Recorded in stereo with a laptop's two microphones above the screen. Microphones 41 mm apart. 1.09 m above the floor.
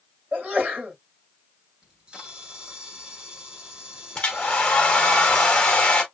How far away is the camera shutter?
About 1.3 m.